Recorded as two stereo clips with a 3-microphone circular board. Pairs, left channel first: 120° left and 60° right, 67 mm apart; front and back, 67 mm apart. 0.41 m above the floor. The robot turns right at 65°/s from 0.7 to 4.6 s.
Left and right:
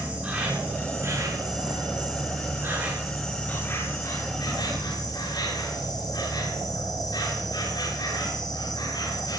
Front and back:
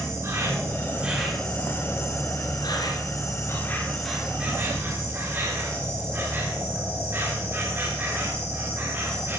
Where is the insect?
130° right, 9.5 m; by 9.4 s 125° left, 9.5 m.